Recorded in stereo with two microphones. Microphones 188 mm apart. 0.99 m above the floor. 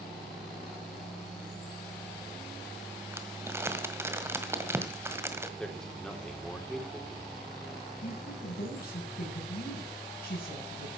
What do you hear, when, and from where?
3.1 s crumpling: 15° right (ahead or behind), 1.8 m
5.6 s a man speaking: 5° left (ahead or behind), 3 m
8.0 s a woman speaking: 55° left (ahead or behind), 9.5 m